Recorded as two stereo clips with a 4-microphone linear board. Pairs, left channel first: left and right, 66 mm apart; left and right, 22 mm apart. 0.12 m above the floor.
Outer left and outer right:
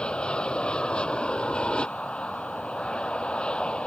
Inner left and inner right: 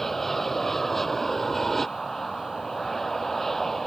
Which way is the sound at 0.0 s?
15° left (ahead or behind).